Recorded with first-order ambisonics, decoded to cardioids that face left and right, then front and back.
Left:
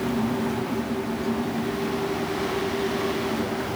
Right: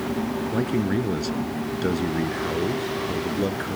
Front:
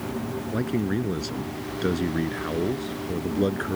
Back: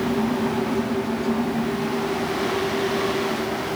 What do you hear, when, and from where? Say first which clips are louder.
0.5 s a man speaking: right 3 dB, back 4 dB; 60° right; by 3.8 s 25° right